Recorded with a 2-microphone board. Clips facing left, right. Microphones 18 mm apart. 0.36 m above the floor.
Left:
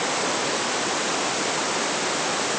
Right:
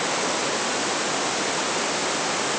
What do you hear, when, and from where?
Only background noise.